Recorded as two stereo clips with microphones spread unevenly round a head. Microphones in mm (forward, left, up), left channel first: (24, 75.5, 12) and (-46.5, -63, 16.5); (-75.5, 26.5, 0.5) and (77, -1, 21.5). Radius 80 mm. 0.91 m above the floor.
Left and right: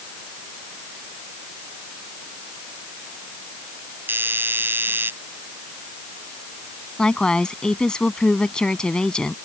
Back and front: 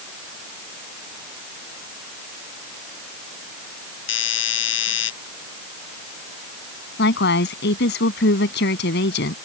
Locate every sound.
4.1 s a doorbell: 165° left
7.0 s a woman speaking: 150° left